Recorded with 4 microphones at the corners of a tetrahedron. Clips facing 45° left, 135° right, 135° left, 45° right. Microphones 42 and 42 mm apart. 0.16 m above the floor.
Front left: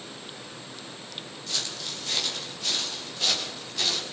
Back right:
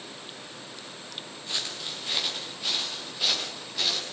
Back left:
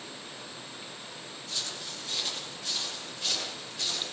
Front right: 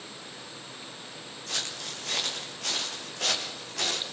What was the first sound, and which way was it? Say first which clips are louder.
Footsteps: even, front right 3 dB; 65° right.